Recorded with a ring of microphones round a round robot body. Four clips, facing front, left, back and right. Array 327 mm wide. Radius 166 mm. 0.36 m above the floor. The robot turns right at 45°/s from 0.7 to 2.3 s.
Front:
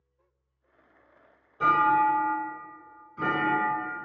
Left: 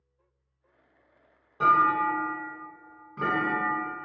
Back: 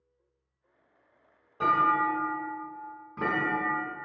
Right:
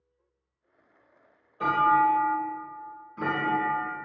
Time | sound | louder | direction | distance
1.6 | a clunk | even, front 3 dB | 115° left | 1.3 m